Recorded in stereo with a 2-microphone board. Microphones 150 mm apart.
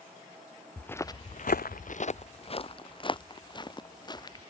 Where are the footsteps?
10° left (ahead or behind); by 4.4 s 30° left (ahead or behind).